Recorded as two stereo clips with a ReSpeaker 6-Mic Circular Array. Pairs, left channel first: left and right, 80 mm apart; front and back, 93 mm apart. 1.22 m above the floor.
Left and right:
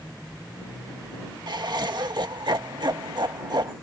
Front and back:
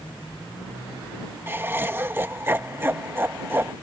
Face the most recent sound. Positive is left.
turn(degrees=-115)